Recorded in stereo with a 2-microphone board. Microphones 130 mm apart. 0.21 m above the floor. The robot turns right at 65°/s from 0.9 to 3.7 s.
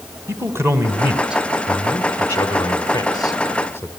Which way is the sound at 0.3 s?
20° right (ahead or behind).